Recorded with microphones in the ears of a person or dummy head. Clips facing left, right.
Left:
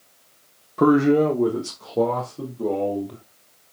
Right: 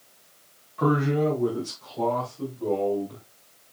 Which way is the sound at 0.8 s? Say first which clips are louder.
Left 7 dB; 55° left (ahead or behind).